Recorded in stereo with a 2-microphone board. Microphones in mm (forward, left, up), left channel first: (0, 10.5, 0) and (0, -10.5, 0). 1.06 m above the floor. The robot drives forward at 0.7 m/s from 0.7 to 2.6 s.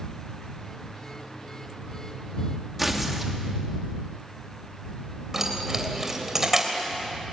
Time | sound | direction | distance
2.8 | tearing paper | 10° right (ahead or behind) | 2.5 m
5.3 | keys jangling | 20° right (ahead or behind) | 3 m